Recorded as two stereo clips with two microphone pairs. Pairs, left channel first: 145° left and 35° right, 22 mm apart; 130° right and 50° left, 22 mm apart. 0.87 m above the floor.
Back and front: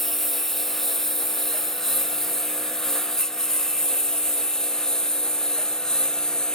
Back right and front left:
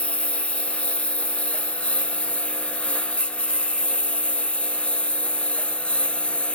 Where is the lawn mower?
130° right; by 6.5 s 145° right.